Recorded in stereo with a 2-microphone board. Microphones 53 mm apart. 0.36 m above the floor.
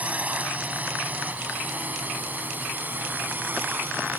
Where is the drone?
30° right (ahead or behind); by 4.2 s 40° right (ahead or behind).